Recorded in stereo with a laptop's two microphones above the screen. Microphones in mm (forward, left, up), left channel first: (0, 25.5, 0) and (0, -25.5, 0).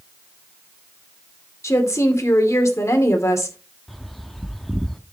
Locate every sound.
1.6 s a woman speaking: 75° left (ahead or behind), 2.5 m
3.9 s a bird: 5° left (ahead or behind), 1.2 m